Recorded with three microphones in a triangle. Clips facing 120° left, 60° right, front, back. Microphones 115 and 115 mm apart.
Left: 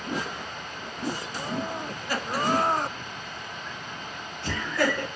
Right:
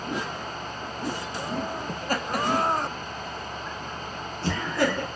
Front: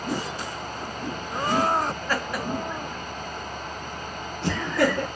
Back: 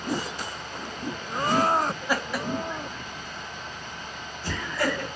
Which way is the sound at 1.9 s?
110° right.